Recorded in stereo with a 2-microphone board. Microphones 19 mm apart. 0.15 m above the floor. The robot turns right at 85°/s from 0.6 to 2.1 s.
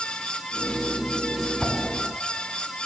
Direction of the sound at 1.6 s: Centre (ahead or behind).